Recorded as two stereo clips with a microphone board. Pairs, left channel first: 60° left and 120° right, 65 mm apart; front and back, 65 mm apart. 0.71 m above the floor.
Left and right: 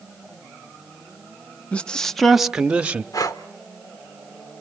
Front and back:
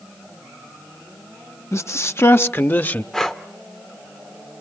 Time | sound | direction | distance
1.7 | a man speaking | straight ahead | 0.9 m
3.1 | breathing | 80° left | 1.4 m